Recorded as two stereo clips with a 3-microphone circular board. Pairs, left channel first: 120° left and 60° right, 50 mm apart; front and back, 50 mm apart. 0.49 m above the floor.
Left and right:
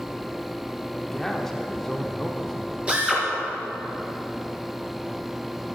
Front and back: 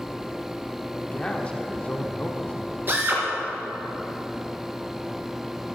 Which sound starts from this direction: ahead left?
A man speaking, at 0.9 s.